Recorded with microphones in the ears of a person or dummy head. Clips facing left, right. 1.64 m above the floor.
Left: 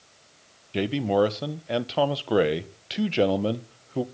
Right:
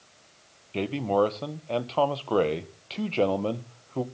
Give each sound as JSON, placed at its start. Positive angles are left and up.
{"t": 0.7, "sound": "a man speaking", "side_deg": 15, "distance_m": 1.1}